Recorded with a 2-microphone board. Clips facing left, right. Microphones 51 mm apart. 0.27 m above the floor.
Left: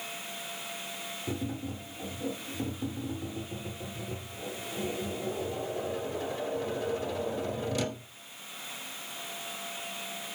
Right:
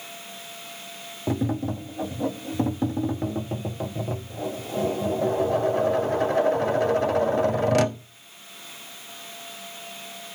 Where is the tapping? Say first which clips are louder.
Right 11 dB; 65° right (ahead or behind), 0.5 m.